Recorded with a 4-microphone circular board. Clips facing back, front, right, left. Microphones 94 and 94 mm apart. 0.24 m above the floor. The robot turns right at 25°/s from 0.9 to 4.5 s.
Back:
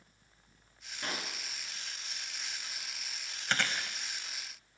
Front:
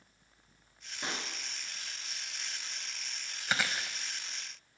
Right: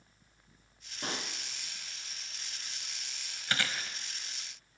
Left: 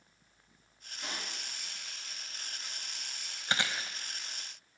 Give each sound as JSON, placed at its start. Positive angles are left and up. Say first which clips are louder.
{"t": 1.0, "sound": "a pop", "louder": "even, right 4 dB", "azimuth_deg": -70, "distance_m": 2.0}
{"t": 3.5, "sound": "chewing", "louder": "even, left 1 dB", "azimuth_deg": 70, "distance_m": 0.9}